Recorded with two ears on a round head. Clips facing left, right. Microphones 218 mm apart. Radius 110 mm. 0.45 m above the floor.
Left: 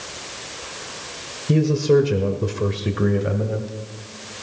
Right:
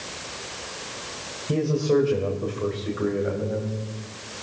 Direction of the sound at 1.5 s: 30° left (ahead or behind).